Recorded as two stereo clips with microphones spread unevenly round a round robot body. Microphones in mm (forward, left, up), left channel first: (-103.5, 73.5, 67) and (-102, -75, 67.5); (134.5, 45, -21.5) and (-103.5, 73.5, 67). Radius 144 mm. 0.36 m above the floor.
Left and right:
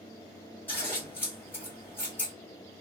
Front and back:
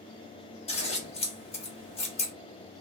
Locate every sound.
0.7 s scissors: 20° left, 1.0 m